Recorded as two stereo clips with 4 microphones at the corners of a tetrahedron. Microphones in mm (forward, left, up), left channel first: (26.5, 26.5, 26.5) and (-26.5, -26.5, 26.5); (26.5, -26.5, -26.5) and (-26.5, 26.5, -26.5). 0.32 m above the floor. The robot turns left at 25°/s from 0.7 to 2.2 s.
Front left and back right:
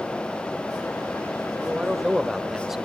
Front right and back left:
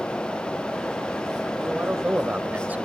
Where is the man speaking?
165° left, 0.9 m; by 2.9 s 150° left, 0.9 m.